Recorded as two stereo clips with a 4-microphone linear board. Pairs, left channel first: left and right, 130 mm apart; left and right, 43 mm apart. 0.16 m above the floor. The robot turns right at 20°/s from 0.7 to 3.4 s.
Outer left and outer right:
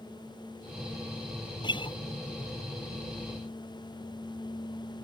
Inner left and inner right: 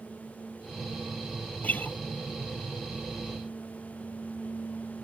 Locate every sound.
1.6 s a guitar: 35° left (ahead or behind); by 2.0 s 40° left (ahead or behind)